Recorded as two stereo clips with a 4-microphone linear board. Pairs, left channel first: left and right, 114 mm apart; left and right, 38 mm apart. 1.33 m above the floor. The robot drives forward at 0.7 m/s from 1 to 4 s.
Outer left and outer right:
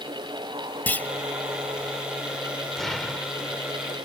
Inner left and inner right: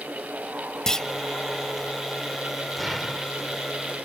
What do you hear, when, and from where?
0.9 s a clunk: 15° left (ahead or behind)
2.8 s an explosion: centre (ahead or behind)